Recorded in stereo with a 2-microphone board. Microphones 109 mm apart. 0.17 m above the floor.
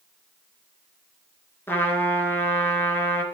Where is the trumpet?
20° left (ahead or behind), 2.5 m.